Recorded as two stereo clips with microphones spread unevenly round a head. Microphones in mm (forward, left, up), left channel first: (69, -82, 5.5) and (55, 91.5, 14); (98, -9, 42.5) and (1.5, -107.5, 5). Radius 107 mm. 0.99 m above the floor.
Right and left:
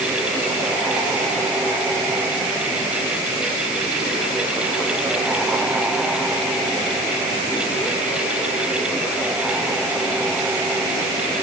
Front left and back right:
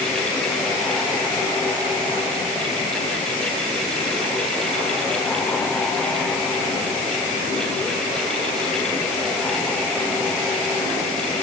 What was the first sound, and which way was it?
Only background noise.